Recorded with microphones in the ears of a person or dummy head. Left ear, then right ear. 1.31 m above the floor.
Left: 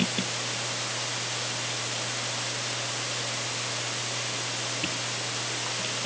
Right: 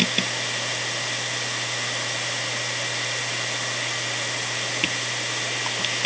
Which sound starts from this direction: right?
A machine running, at 0.0 s.